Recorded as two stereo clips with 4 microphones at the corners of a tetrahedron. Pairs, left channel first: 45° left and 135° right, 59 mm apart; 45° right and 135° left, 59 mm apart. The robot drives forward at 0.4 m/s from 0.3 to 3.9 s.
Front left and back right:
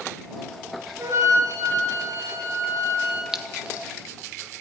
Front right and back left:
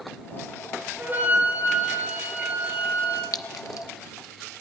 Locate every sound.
1.0 s a flute: 165° right, 3.5 m; by 3.2 s 170° right, 4 m
3.3 s a clink: 55° right, 0.7 m; by 3.9 s 70° right, 0.6 m